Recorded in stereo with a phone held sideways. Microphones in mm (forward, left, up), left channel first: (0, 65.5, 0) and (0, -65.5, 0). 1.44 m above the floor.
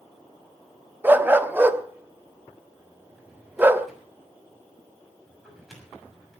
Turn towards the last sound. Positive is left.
turn(degrees=0)  # may be behind; listen again after turning